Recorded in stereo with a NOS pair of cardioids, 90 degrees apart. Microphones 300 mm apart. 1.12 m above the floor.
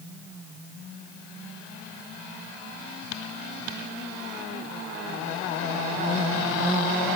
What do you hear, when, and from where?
Only background noise.